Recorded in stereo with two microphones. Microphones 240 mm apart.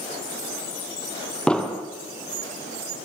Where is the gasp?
I don't hear a gasp.